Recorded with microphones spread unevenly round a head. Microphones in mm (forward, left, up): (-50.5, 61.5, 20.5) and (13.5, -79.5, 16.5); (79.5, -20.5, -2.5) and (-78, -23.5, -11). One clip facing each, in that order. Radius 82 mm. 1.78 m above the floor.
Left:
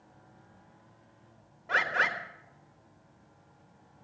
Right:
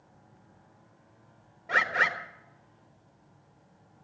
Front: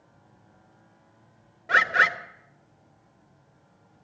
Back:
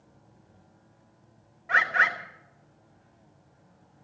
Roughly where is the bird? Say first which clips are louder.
Right 1 dB, front 3 dB; ahead.